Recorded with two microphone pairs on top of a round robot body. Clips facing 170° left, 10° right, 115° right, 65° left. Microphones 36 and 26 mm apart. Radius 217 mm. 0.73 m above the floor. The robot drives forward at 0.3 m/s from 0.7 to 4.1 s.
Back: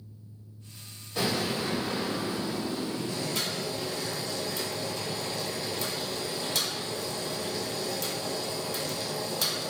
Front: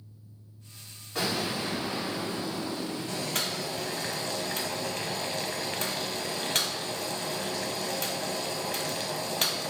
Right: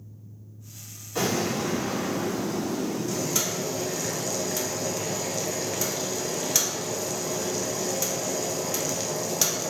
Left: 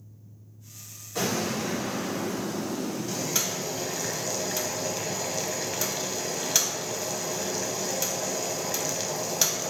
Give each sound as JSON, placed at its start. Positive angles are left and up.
{"t": 1.1, "sound": "an explosion", "azimuth_deg": -35, "distance_m": 1.8}
{"t": 3.1, "sound": "boiling", "azimuth_deg": -10, "distance_m": 1.0}